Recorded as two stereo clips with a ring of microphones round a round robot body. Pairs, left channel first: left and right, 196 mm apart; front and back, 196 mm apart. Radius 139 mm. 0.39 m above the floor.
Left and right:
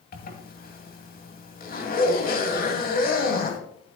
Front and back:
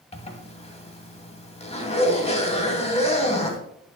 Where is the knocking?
No knocking in this recording.